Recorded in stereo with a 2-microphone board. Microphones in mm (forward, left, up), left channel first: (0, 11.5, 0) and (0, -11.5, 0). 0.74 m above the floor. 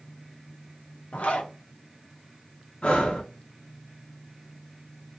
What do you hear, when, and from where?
1.1 s a zipper: 75° left (ahead or behind), 0.5 m
2.8 s breathing: 55° left (ahead or behind), 0.6 m